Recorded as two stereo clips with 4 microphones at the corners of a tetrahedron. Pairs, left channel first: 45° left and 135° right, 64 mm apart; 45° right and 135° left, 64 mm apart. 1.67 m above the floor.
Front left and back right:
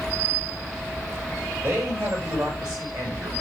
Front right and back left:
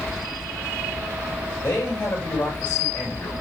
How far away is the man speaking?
About 9 m.